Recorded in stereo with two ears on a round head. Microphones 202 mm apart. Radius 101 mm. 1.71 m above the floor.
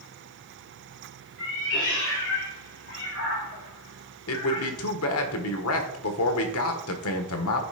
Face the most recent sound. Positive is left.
turn(degrees=70)  # may be behind; listen again after turning